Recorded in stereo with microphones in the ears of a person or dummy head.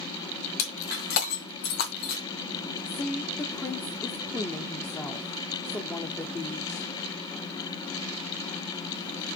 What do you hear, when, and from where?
0.6 s breaking glass: 50° left (ahead or behind), 2.5 m
2.9 s a woman speaking: 10° left (ahead or behind), 0.7 m